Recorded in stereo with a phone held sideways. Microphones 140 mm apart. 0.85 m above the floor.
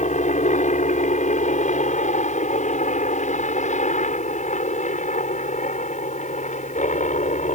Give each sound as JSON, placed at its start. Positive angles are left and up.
{"t": 0.0, "sound": "a helicopter", "side_deg": 60}